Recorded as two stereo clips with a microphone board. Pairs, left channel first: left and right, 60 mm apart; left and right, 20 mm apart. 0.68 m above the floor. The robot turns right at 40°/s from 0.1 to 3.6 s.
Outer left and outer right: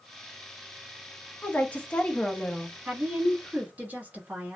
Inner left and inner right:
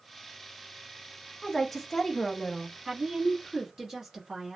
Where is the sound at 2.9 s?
80° right, 1.2 m; by 4.6 s 50° right, 1.2 m.